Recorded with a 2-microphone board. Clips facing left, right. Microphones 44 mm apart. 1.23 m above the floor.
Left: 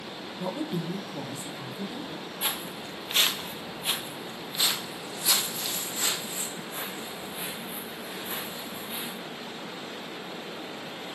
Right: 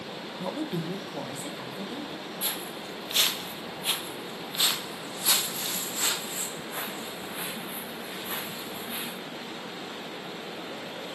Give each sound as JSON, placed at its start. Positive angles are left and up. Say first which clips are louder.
{"t": 0.4, "sound": "a woman speaking", "louder": "left 1 dB", "side_deg": 0, "distance_m": 0.9}
{"t": 2.4, "sound": "footsteps", "louder": "left 4 dB", "side_deg": 40, "distance_m": 1.6}